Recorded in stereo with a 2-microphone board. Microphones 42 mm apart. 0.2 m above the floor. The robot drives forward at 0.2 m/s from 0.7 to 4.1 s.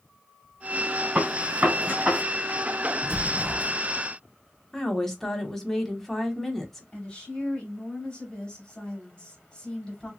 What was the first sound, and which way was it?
A gunshot, 35° right (ahead or behind).